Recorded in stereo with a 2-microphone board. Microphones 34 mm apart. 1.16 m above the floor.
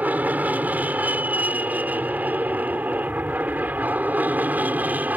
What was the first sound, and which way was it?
An aircraft, 55° right (ahead or behind).